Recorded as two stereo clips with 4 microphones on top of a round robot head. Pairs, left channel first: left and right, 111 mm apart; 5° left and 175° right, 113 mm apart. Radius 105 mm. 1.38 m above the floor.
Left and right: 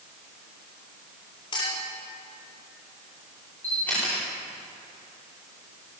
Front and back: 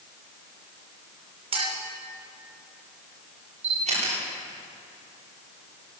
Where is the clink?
150° left, 3.5 m.